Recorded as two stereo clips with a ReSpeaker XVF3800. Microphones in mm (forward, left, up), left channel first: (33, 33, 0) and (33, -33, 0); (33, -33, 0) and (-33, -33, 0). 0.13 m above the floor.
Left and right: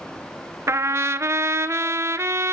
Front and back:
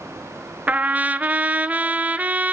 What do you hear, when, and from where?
0.7 s a trumpet: 120° right, 0.6 m